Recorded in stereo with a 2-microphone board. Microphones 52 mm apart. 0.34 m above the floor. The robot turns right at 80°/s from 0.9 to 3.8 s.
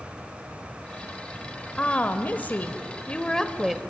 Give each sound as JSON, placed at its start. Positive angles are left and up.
{"t": 1.8, "sound": "a woman speaking", "azimuth_deg": 35, "distance_m": 1.5}